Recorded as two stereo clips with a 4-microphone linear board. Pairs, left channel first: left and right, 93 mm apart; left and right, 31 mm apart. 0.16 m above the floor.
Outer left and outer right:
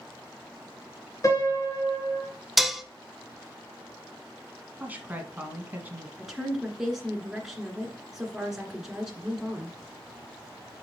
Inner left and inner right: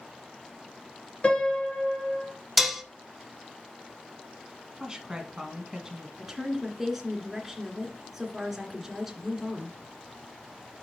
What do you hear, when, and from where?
1.2 s a piano: 35° left (ahead or behind), 2 m
2.6 s dishes clattering: 5° right (ahead or behind), 0.7 m
4.8 s a woman speaking: 20° right (ahead or behind), 1.4 m
6.2 s a woman speaking: 5° right (ahead or behind), 2.0 m